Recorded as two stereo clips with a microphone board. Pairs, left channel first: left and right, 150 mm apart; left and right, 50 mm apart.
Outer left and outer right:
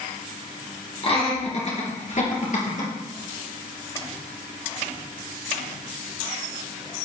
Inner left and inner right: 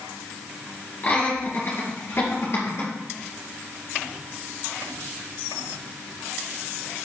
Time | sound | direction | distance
1.0 | laughter | 40° left (ahead or behind) | 2.5 m